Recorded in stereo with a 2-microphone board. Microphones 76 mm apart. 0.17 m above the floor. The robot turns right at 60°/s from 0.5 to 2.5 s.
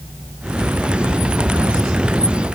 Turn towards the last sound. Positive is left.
No sound to turn to.